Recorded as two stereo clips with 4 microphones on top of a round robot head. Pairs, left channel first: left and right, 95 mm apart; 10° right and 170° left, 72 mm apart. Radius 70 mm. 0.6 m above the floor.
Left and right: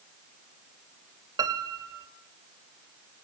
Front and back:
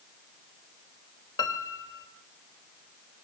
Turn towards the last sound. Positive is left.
turn(degrees=-40)